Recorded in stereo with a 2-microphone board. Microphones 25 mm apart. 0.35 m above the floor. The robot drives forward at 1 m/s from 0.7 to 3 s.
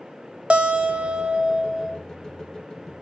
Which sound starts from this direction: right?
A guitar, at 0.5 s.